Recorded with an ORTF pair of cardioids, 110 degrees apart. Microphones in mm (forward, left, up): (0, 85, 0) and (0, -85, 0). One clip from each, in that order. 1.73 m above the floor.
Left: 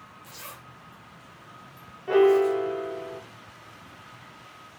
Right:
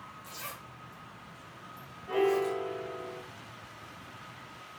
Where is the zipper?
5° right, 1.1 m.